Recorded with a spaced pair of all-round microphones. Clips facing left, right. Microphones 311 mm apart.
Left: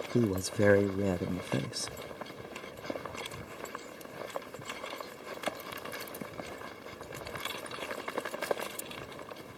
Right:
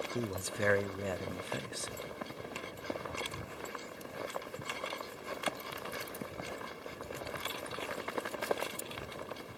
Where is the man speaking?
55° left (ahead or behind).